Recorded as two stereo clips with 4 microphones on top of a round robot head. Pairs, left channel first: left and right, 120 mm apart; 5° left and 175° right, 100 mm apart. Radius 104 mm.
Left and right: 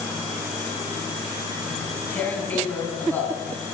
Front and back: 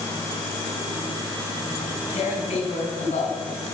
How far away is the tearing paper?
About 2.5 m.